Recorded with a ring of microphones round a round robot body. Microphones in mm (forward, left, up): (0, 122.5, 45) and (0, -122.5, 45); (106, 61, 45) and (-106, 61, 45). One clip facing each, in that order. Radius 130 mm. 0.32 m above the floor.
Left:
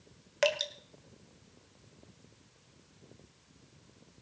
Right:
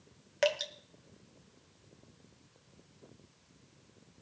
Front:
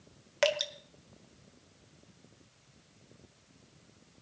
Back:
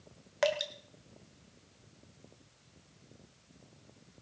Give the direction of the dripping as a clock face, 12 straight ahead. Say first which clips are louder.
Even, front 1 dB; 12 o'clock.